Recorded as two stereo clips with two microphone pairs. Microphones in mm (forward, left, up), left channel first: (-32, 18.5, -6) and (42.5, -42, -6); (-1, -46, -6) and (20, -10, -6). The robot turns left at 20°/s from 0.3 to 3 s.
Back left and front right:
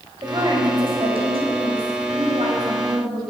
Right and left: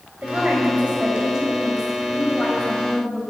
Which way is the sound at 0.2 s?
5° left.